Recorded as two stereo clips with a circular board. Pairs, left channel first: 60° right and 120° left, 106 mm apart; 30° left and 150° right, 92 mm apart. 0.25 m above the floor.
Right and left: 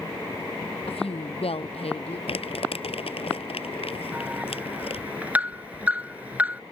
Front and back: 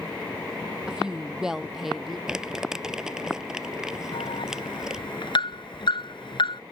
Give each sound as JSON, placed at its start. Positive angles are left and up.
{"t": 0.9, "sound": "a woman speaking", "azimuth_deg": -70}
{"t": 2.3, "sound": "crumpling", "azimuth_deg": -65}
{"t": 4.1, "sound": "an alarm", "azimuth_deg": 45}